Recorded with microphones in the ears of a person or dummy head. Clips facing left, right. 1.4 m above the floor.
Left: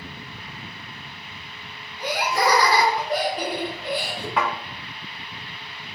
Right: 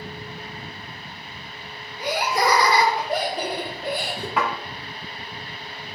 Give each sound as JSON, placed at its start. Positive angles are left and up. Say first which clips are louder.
{"t": 2.0, "sound": "laughter", "louder": "even", "side_deg": -10, "distance_m": 2.0}
{"t": 4.4, "sound": "a thud", "louder": "even", "side_deg": 0, "distance_m": 1.5}